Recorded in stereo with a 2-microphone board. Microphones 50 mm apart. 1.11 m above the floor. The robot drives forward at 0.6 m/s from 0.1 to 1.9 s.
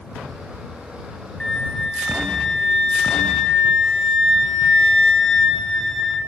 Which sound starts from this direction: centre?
A flute, at 1.4 s.